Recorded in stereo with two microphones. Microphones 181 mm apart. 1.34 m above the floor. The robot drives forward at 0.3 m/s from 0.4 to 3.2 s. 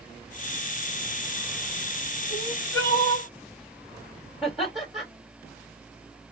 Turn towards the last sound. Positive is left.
turn(degrees=0)  # may be behind; listen again after turning